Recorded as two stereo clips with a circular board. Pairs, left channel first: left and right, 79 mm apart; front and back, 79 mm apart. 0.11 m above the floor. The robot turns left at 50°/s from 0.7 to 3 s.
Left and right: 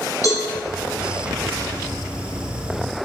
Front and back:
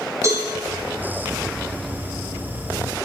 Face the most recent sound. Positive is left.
turn(degrees=20)